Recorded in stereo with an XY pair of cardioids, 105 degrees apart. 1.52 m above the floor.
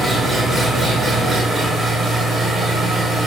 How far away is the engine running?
About 4.5 m.